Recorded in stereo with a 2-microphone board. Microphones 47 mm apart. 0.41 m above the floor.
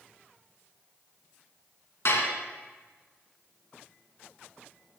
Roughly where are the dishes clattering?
Left.